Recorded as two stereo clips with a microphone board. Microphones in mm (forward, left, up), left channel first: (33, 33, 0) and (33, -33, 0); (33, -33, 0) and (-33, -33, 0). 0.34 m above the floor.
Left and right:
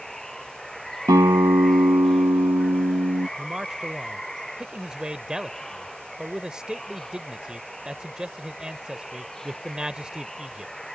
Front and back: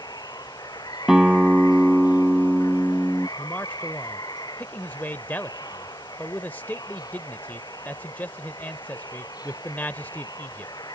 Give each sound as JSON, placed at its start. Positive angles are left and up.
{"t": 0.0, "sound": "running water", "azimuth_deg": 5}
{"t": 1.1, "sound": "a guitar", "azimuth_deg": -100}
{"t": 3.4, "sound": "a man speaking", "azimuth_deg": -25}